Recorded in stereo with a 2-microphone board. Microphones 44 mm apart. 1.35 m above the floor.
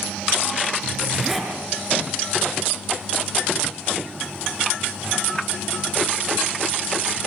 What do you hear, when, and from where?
0.8 s a zipper: 10° right (ahead or behind), 7.5 m